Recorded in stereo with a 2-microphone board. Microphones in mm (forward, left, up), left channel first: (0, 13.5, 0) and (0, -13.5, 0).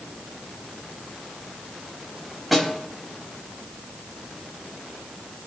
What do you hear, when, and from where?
2.5 s a snare drum: centre (ahead or behind), 4 m